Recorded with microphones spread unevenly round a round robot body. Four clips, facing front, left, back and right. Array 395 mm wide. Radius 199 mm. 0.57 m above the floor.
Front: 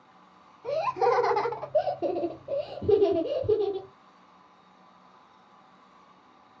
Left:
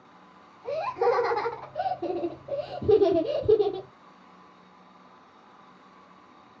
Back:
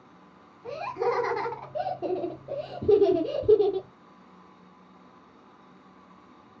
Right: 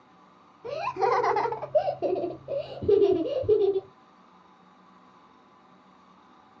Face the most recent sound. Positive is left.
turn(degrees=145)